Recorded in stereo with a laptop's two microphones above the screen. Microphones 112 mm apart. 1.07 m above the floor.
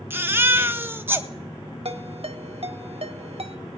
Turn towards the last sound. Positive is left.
turn(degrees=-60)  # may be behind; listen again after turning